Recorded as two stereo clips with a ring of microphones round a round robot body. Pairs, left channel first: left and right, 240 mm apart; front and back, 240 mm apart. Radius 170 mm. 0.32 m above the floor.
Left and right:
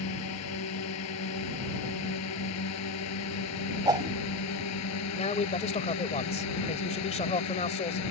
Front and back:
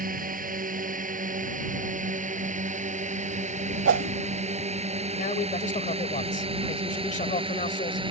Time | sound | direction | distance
0.0 | a drone | 125° left | ?
3.9 | a whoosh | 160° right | ?
5.2 | a man speaking | 40° left | ?